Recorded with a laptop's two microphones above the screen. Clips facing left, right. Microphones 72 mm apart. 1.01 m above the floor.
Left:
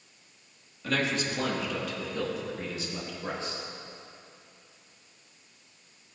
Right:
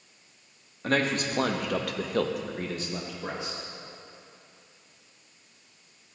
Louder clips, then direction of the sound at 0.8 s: Right 3 dB; 45° right (ahead or behind).